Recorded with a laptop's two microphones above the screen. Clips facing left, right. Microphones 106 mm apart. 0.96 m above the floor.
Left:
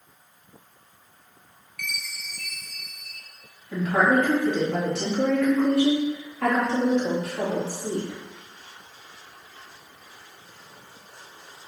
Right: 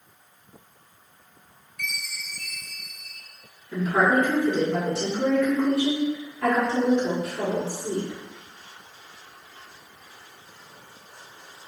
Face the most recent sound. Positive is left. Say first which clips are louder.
# even
turn(degrees=70)  # may be behind; listen again after turning